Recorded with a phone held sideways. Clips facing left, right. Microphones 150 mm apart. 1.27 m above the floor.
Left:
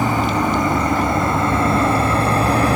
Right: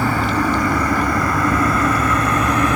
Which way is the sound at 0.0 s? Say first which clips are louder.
Left 1 dB; 20° left (ahead or behind).